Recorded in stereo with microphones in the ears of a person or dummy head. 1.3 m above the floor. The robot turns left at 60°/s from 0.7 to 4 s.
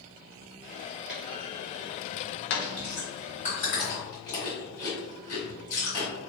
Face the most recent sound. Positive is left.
turn(degrees=55)  # may be behind; listen again after turning